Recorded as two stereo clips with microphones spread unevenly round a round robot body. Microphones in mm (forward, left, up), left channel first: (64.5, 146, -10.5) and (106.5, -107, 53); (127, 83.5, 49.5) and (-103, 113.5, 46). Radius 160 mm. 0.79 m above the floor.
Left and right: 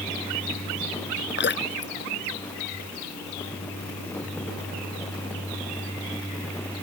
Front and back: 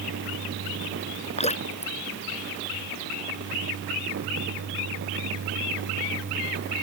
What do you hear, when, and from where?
1.4 s dripping: 55° left